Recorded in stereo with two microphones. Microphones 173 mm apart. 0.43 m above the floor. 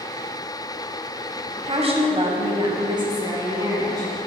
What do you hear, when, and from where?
1.6 s a woman speaking: 40° right (ahead or behind), 2 m; by 4.1 s 20° right (ahead or behind), 3.5 m